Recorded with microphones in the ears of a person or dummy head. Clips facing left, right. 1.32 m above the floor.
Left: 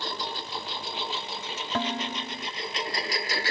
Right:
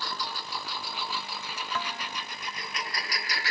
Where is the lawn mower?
25° left (ahead or behind).